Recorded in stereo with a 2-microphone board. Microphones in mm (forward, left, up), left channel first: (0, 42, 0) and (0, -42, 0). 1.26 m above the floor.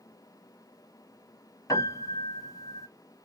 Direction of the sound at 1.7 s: 45° left (ahead or behind).